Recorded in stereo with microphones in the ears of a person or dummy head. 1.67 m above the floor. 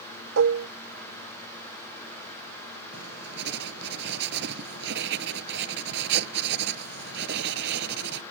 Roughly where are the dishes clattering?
Right.